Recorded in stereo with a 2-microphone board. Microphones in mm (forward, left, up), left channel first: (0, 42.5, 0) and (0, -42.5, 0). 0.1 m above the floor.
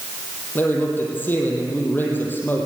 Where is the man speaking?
20° left (ahead or behind), 3 m.